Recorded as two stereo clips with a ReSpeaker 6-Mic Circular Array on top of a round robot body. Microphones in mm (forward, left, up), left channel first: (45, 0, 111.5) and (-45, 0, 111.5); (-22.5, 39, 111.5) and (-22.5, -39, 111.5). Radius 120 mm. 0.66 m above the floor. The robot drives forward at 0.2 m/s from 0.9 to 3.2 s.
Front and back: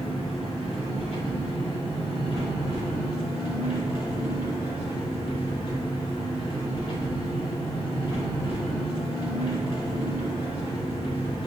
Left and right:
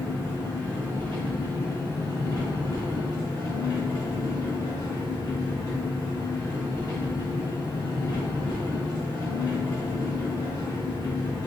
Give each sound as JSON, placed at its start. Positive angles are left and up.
{"t": 0.0, "sound": "an engine running", "azimuth_deg": 25, "distance_m": 1.1}